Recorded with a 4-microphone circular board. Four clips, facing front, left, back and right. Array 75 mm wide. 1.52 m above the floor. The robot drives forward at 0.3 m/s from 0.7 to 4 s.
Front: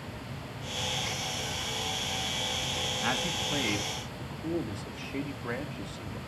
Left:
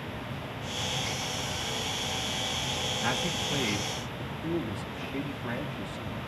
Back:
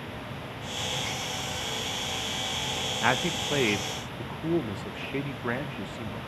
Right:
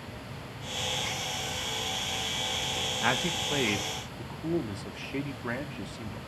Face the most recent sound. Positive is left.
turn(degrees=-165)